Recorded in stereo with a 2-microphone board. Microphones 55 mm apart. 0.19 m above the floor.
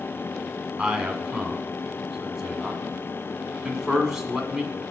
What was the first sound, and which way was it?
A man speaking, 10° right (ahead or behind).